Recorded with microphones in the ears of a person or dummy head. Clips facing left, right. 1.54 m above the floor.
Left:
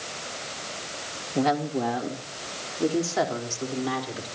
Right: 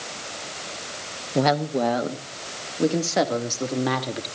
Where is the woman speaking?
60° right (ahead or behind), 1.5 m; by 4.3 s 70° right (ahead or behind), 3.5 m.